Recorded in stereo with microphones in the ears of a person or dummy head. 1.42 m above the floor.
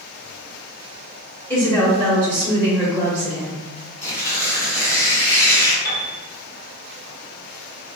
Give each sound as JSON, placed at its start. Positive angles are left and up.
{"t": 1.5, "sound": "a woman speaking", "side_deg": 15, "distance_m": 0.8}
{"t": 4.0, "sound": "tearing paper", "side_deg": 15, "distance_m": 0.9}
{"t": 5.8, "sound": "a piano", "side_deg": 50, "distance_m": 1.6}